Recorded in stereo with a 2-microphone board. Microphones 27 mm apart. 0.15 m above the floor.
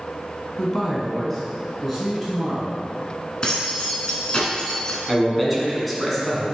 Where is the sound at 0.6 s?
20° left (ahead or behind), 1.1 m; by 2.8 s 5° right (ahead or behind), 1.6 m.